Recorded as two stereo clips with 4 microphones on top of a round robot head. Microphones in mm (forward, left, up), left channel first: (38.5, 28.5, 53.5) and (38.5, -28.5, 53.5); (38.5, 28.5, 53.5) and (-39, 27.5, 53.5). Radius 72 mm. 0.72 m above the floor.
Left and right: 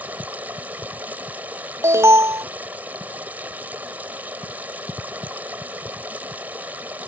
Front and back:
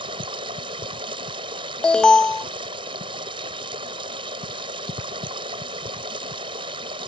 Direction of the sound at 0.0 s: 160° right.